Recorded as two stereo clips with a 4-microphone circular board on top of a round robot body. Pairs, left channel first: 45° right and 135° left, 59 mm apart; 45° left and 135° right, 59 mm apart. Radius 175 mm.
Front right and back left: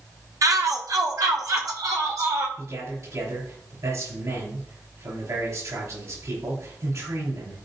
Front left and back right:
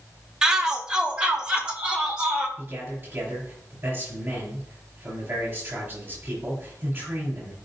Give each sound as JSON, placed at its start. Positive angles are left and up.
{"t": 0.4, "sound": "a shout", "azimuth_deg": 145, "distance_m": 1.5}
{"t": 2.6, "sound": "a man speaking", "azimuth_deg": 165, "distance_m": 5.5}